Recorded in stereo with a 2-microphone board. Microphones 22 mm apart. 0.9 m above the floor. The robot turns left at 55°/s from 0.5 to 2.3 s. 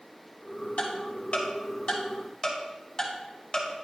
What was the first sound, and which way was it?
Ticking, 60° left (ahead or behind).